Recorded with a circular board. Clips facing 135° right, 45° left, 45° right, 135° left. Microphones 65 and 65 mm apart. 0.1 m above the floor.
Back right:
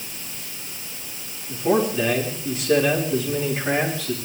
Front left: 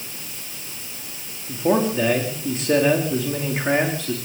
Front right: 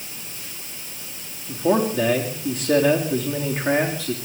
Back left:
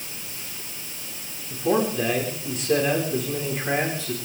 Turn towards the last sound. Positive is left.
turn(degrees=-10)